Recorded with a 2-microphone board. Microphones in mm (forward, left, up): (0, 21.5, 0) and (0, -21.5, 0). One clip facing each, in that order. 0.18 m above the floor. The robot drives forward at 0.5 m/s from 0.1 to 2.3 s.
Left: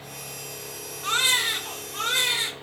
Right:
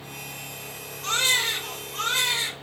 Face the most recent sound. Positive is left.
turn(degrees=10)  # may be behind; listen again after turning